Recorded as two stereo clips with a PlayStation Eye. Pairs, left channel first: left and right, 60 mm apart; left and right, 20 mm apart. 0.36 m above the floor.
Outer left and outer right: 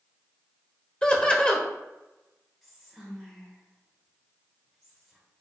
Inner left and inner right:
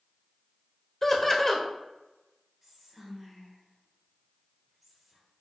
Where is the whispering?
5° left (ahead or behind), 1.4 m.